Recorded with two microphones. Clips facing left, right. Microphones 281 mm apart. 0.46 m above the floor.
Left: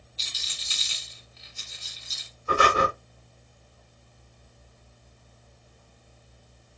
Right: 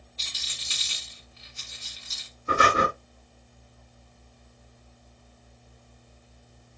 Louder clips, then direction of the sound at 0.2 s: Even; 60° right (ahead or behind).